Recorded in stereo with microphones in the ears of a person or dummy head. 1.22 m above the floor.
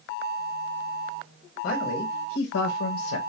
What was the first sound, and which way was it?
A man speaking, 50° left (ahead or behind).